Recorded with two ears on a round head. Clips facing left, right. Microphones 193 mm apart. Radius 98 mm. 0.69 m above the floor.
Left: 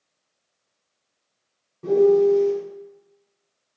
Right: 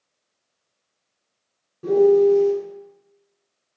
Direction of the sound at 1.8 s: 5° right (ahead or behind).